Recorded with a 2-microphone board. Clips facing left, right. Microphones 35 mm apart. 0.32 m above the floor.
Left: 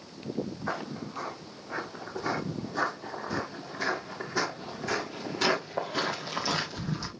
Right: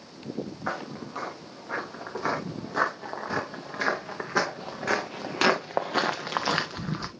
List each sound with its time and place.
0.7 s footsteps: 85° right, 4 m; by 7.1 s 35° right (ahead or behind), 1.2 m